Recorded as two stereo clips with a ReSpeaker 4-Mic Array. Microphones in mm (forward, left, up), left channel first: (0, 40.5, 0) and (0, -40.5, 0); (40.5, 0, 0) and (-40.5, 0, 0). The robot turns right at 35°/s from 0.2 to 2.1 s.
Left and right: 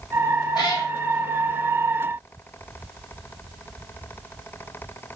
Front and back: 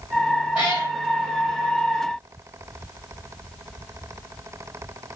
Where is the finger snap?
No finger snap in this recording.